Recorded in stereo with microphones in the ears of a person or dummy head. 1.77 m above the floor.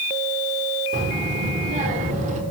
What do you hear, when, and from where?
0.9 s a child speaking: 40° right (ahead or behind), 3 m